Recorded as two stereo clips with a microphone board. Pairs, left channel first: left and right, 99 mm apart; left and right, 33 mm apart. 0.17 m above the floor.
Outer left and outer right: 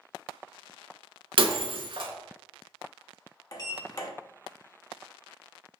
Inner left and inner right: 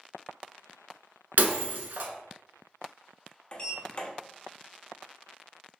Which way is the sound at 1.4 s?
65° right (ahead or behind).